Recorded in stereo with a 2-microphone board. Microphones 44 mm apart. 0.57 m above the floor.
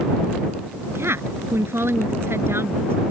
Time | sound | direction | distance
0.9 | a woman speaking | 70° right (ahead or behind) | ?